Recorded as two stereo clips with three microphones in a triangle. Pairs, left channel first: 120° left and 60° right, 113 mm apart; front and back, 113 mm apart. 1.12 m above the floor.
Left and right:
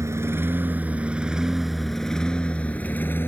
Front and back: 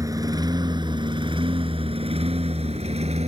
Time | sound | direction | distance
0.0 | a lawn mower | 125° right | ?